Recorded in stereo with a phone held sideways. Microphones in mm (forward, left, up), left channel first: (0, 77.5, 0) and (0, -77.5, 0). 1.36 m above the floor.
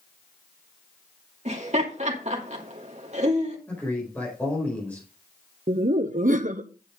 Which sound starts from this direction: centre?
A man speaking, at 3.7 s.